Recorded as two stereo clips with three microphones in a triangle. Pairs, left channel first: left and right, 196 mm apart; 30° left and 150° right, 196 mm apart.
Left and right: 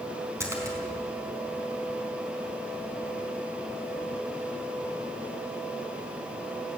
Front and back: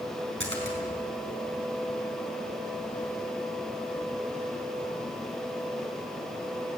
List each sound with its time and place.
0.4 s a splash: 165° right, 4.5 m